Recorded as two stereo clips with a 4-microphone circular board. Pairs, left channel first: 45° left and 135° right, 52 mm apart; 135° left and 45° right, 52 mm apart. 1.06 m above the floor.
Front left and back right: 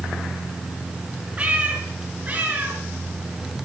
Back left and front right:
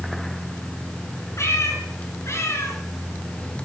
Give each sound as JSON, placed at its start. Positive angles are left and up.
{"t": 1.4, "sound": "a cat meowing", "azimuth_deg": 160, "distance_m": 4.0}